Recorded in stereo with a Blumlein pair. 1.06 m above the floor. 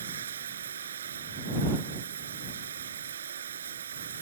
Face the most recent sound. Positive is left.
turn(degrees=-65)